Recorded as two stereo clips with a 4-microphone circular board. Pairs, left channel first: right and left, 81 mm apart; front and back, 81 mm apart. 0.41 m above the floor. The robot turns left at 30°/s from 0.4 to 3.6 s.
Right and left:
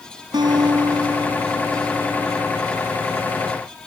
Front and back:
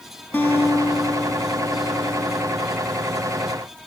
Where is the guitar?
65° left, 3 m; by 2.6 s straight ahead, 3 m.